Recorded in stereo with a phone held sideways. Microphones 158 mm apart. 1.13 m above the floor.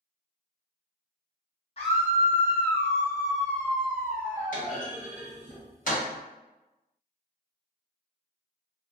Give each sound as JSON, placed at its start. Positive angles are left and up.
{"t": 1.8, "sound": "a scream", "side_deg": 40, "distance_m": 1.2}
{"t": 4.5, "sound": "a clunk", "side_deg": 60, "distance_m": 1.4}